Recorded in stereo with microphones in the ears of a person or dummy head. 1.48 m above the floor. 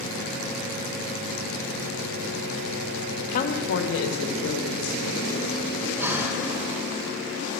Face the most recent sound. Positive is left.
turn(degrees=-10)  # may be behind; listen again after turning